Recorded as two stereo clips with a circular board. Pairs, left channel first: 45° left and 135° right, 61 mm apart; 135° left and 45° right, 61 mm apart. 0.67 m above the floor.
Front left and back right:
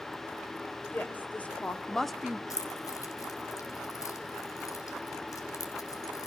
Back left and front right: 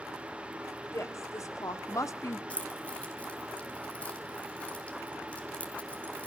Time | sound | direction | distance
0.9 | a woman speaking | 105° left | 2.5 m
2.5 | keys jangling | 65° left | 2.5 m